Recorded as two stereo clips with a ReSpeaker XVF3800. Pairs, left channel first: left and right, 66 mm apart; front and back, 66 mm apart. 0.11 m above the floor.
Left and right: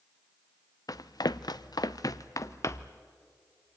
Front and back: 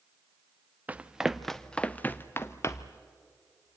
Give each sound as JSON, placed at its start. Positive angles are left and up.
{"t": 0.9, "sound": "running footsteps", "azimuth_deg": 115, "distance_m": 0.7}